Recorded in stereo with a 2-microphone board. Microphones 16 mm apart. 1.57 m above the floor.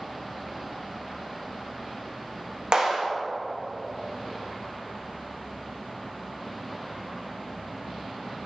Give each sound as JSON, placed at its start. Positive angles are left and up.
{"t": 2.7, "sound": "a clap", "side_deg": -60, "distance_m": 2.5}